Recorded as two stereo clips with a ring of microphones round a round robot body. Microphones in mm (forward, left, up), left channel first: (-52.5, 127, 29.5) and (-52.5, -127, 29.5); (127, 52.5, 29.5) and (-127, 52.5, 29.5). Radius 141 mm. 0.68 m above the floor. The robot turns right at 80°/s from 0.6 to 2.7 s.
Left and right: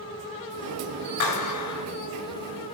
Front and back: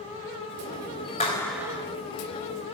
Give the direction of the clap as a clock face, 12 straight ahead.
10 o'clock.